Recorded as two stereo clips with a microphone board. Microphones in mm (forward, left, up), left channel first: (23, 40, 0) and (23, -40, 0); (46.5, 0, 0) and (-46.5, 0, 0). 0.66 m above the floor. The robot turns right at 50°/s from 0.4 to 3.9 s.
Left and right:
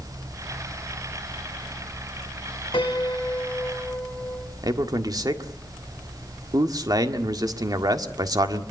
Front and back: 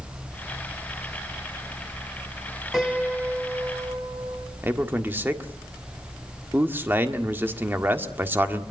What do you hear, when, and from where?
2.7 s a piano: 95° left, 4 m; by 4.5 s 155° left, 4 m
4.6 s a man speaking: 115° right, 1.7 m